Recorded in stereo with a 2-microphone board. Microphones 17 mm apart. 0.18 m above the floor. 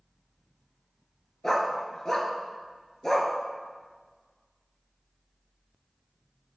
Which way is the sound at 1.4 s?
20° left (ahead or behind).